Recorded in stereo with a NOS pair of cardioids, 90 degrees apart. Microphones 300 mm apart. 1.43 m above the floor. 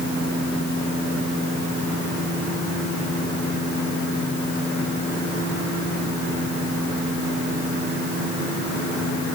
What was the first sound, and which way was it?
Only background noise.